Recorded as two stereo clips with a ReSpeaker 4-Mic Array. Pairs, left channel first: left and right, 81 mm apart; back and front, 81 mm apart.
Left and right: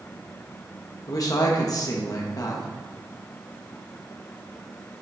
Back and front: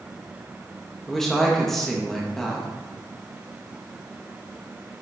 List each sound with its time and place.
1.1 s a woman speaking: 95° left, 1.1 m